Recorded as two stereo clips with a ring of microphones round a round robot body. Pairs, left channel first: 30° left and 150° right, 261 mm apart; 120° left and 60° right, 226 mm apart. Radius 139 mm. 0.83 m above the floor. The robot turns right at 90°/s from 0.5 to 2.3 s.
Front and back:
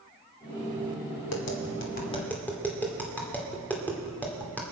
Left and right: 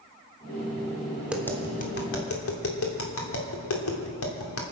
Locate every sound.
1.3 s tapping: 20° left, 2 m; by 4.6 s 115° left, 2 m